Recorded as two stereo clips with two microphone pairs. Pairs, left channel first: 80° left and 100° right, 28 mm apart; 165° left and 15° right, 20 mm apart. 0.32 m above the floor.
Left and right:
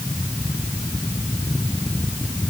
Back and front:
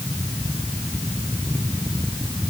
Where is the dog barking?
I don't hear a dog barking.